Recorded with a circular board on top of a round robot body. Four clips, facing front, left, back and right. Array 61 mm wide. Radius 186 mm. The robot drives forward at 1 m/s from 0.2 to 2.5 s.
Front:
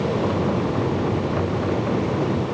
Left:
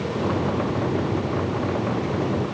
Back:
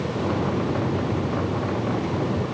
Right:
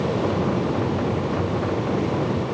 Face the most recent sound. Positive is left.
No sound to turn to.